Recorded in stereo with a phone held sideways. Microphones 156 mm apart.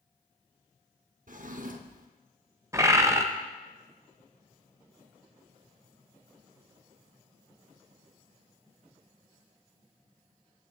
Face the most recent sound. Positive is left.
turn(degrees=-20)  # may be behind; listen again after turning